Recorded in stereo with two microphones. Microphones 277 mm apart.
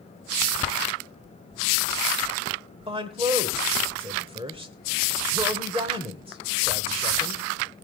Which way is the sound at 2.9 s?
20° right (ahead or behind).